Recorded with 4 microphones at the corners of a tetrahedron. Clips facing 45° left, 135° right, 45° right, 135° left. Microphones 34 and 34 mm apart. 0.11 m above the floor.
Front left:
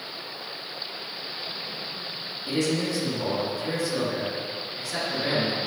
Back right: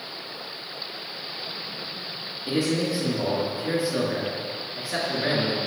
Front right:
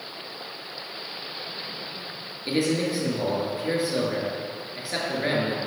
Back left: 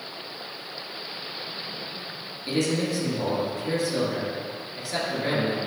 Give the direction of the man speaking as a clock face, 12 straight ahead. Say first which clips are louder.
Back right 1 dB, front right 1 dB; 3 o'clock.